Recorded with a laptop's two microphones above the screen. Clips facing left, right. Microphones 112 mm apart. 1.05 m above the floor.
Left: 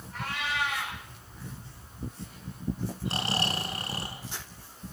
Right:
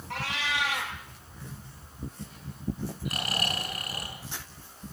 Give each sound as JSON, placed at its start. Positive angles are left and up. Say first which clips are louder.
{"t": 0.1, "sound": "a cat meowing", "louder": "right 1 dB", "side_deg": -85, "distance_m": 9.5}
{"t": 3.0, "sound": "snoring", "louder": "left 3 dB", "side_deg": 30, "distance_m": 5.0}